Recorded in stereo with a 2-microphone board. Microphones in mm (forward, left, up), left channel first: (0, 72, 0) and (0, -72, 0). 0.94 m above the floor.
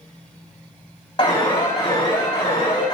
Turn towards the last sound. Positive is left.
turn(degrees=30)  # may be behind; listen again after turning